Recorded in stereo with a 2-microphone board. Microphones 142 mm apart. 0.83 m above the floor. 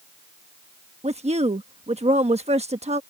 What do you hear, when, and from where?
1.0 s a woman speaking: 50° right (ahead or behind)